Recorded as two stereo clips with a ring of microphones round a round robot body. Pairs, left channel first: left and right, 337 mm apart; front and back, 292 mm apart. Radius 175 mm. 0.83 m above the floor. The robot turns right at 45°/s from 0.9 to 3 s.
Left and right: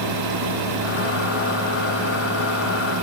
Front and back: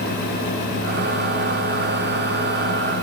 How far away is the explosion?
I don't hear an explosion.